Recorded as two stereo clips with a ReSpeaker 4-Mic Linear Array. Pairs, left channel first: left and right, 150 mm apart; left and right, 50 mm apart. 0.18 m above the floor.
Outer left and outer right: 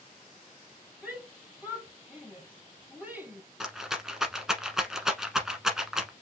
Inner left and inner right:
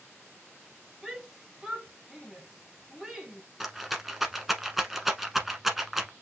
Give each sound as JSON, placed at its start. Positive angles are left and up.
{"t": 1.0, "sound": "a shout", "side_deg": -5, "distance_m": 3.0}
{"t": 3.6, "sound": "a rattle", "side_deg": -5, "distance_m": 1.1}